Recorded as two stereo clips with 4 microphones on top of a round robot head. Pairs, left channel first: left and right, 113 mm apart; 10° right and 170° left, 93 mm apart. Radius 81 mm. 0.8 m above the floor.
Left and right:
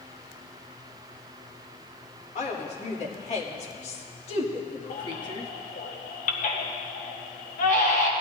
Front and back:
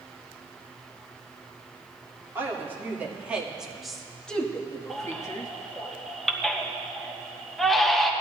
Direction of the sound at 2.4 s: 105° left.